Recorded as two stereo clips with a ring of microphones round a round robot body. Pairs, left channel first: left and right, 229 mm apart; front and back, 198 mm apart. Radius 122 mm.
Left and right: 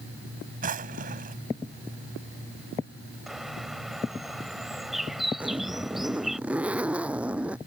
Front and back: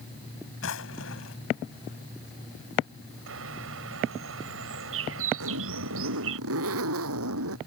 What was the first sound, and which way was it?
A drawer, 35° right.